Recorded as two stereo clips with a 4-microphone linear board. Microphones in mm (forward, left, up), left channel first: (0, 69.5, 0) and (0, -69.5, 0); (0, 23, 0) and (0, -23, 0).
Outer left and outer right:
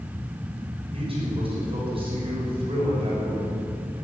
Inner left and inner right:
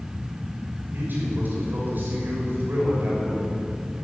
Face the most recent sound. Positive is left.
turn(degrees=-40)  # may be behind; listen again after turning